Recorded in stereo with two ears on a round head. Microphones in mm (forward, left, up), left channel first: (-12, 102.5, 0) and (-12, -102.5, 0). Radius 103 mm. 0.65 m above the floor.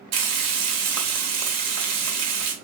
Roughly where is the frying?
Right.